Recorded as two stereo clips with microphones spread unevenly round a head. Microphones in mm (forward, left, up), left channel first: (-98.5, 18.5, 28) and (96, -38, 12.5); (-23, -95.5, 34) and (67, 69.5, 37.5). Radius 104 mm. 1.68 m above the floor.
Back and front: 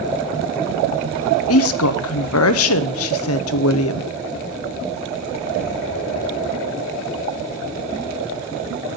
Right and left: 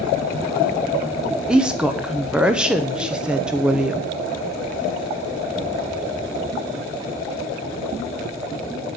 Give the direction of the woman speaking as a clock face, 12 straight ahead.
7 o'clock.